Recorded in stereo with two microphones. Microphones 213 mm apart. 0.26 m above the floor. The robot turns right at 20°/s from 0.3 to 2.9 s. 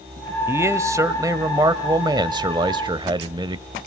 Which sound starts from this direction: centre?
A man speaking, at 0.5 s.